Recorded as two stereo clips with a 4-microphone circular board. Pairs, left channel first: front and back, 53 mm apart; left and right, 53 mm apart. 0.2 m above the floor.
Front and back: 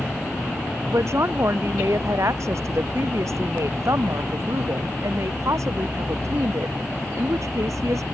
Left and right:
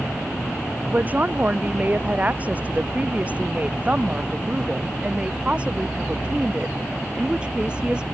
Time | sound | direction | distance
0.9 | a woman speaking | 150° right | ?